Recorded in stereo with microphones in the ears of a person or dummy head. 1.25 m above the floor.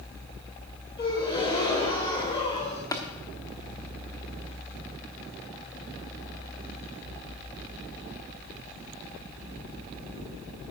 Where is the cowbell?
I don't hear a cowbell.